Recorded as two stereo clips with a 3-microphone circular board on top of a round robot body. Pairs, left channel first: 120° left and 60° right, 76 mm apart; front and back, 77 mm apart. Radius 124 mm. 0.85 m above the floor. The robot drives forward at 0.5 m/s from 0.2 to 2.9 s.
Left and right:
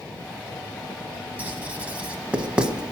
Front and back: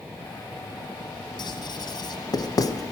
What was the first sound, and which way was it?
Writing, 5° left.